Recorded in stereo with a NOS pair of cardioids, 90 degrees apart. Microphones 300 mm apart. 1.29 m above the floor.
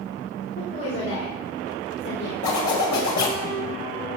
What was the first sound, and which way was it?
A woman speaking, 50° left.